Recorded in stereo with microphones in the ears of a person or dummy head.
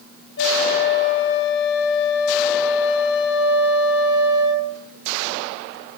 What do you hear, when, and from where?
0.4 s a flute: 70° left (ahead or behind), 3.5 m